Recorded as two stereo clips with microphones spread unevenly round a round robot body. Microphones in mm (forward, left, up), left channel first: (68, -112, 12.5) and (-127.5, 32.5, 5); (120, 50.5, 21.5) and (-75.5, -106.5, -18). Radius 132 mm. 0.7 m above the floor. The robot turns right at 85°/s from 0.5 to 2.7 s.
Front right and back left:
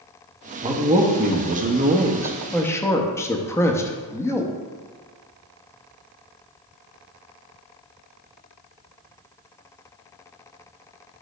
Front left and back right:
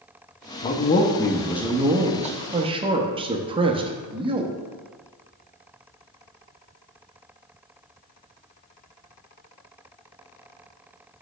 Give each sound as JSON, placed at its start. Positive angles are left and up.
{"t": 0.6, "sound": "a man speaking", "azimuth_deg": 75, "distance_m": 0.7}